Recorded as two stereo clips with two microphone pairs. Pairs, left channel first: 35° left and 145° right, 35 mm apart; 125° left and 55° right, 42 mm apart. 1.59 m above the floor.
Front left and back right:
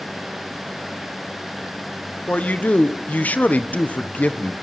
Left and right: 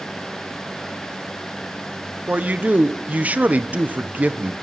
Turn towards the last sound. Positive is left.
turn(degrees=-5)